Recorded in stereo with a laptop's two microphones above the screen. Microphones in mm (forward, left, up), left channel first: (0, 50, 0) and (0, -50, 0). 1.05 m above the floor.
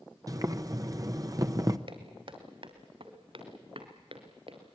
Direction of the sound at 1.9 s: 60° right (ahead or behind).